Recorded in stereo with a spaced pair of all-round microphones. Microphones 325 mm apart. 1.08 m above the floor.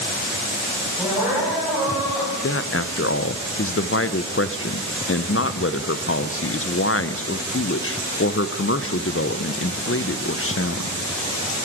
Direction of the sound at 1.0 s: 5° right (ahead or behind).